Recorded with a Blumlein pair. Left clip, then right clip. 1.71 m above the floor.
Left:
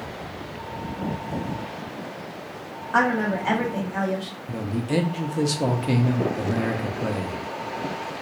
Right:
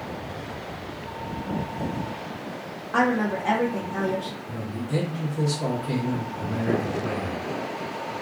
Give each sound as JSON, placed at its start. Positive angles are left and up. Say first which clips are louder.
{"t": 2.9, "sound": "a woman speaking", "louder": "left 2 dB", "azimuth_deg": 15, "distance_m": 1.2}
{"t": 4.5, "sound": "a man speaking", "louder": "left 7 dB", "azimuth_deg": 35, "distance_m": 0.7}